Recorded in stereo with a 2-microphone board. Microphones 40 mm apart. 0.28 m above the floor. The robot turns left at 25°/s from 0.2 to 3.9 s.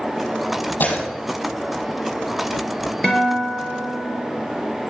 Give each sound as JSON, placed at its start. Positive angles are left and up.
{"t": 0.8, "sound": "breaking glass", "side_deg": 50, "distance_m": 5.0}
{"t": 3.0, "sound": "a guitar", "side_deg": 10, "distance_m": 4.0}